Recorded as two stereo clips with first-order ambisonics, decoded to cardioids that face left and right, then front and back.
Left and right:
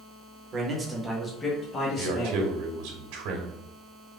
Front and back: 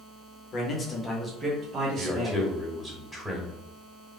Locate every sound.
0.5 s a man speaking: 40° right, 1.0 m; by 2.5 s 135° left, 1.4 m
2.0 s a man speaking: 95° right, 1.2 m